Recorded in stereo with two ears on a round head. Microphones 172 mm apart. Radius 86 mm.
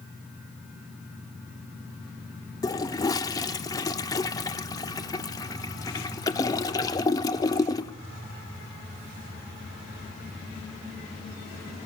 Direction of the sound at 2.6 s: 20° left (ahead or behind).